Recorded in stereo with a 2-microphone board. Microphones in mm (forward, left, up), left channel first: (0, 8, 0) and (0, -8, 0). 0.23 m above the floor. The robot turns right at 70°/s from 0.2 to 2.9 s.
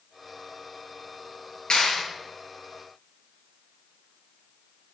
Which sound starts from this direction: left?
A clap, at 1.7 s.